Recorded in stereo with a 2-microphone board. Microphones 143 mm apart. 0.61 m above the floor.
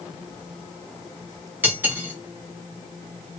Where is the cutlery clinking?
15° right (ahead or behind), 1.1 m.